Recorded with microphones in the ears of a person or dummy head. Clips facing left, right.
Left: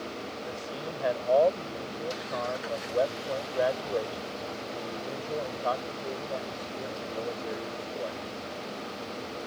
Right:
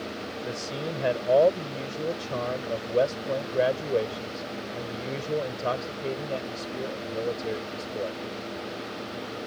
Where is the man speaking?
40° right (ahead or behind).